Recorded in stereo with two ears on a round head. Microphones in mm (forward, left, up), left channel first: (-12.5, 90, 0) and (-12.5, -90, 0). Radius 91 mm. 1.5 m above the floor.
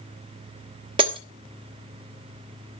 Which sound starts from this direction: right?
Breaking glass, at 1.0 s.